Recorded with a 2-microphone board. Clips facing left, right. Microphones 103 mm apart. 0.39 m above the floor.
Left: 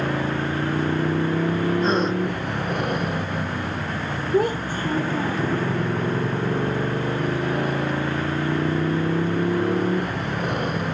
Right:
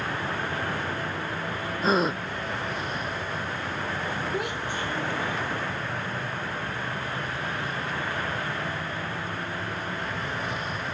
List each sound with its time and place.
0.0 s a motorcycle: 60° left (ahead or behind)
1.8 s a gasp: 5° right (ahead or behind)
4.3 s a child speaking: 40° left (ahead or behind)